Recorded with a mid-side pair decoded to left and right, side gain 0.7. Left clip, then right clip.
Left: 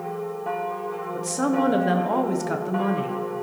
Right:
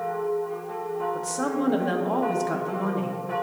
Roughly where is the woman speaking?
Ahead.